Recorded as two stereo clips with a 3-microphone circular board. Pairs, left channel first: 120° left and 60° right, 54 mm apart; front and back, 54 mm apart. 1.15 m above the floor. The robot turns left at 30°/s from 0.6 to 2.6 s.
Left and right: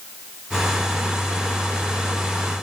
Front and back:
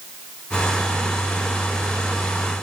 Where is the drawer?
I don't hear a drawer.